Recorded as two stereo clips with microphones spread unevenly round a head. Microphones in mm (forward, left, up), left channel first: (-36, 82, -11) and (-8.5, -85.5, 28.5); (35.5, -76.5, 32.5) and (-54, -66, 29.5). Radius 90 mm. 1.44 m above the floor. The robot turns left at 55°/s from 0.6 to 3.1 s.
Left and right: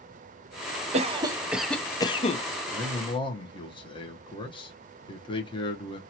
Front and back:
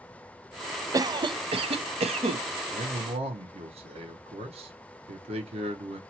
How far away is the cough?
About 0.8 m.